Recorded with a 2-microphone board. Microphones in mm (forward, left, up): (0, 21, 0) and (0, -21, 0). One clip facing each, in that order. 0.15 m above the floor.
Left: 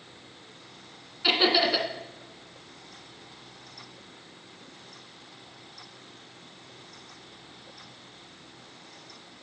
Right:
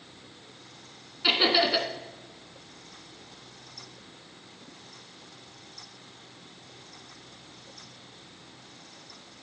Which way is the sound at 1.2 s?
5° right (ahead or behind).